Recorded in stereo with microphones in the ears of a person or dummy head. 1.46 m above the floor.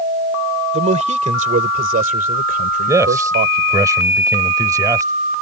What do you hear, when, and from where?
0.7 s a man speaking: 30° right (ahead or behind); by 3.9 s 45° right (ahead or behind)
2.9 s a man speaking: 10° right (ahead or behind)